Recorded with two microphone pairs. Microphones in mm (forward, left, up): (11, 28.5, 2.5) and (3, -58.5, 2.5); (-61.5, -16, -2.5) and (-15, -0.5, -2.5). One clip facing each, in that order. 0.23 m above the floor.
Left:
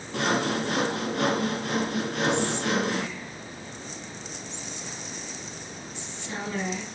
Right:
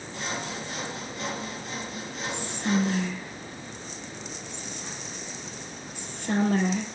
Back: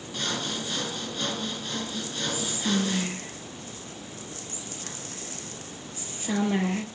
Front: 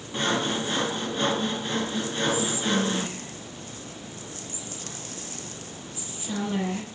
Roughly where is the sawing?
Left.